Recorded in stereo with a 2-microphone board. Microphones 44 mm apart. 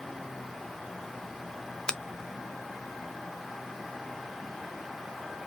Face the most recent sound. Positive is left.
turn(degrees=20)  # may be behind; listen again after turning